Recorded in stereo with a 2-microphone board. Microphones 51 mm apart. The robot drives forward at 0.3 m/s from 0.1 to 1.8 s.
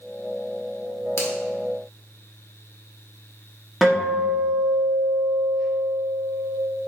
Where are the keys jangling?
I don't hear keys jangling.